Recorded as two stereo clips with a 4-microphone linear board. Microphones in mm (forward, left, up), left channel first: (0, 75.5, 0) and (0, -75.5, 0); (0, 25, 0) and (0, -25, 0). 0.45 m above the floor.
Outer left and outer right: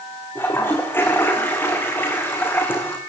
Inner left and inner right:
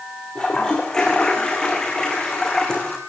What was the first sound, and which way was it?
A toilet flushing, 15° left (ahead or behind).